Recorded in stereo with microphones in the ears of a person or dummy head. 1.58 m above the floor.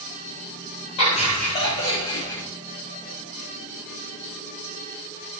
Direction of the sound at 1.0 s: 35° left (ahead or behind).